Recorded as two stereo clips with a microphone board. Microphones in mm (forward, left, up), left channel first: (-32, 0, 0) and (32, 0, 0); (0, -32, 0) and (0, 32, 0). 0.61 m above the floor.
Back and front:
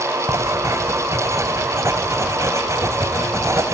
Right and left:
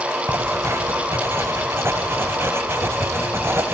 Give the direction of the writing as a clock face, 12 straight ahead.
11 o'clock.